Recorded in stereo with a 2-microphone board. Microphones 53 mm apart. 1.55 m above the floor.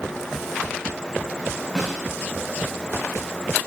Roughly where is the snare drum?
Centre.